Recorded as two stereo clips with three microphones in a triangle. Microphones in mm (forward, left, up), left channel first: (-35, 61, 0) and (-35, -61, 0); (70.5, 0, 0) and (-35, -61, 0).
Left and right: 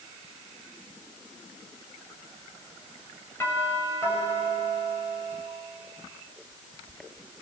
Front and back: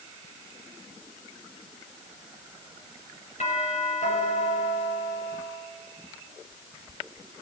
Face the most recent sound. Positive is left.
turn(degrees=20)